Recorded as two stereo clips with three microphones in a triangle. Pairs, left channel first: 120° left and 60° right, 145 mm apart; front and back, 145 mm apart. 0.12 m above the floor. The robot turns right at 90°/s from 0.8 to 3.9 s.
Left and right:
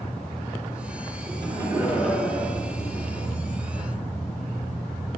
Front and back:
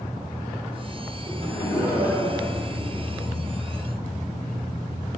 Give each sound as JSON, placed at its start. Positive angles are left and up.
{"t": 1.3, "sound": "laughter", "azimuth_deg": -50, "distance_m": 1.9}